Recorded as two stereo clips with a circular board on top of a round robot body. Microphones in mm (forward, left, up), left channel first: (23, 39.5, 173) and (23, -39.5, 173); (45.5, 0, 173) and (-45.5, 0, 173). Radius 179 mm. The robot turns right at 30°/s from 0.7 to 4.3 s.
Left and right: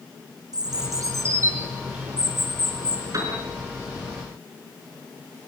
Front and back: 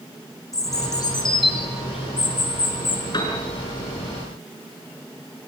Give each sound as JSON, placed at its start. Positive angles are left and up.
{"t": 0.5, "sound": "a bird", "azimuth_deg": -55, "distance_m": 4.0}
{"t": 3.1, "sound": "a piano", "azimuth_deg": -45, "distance_m": 5.5}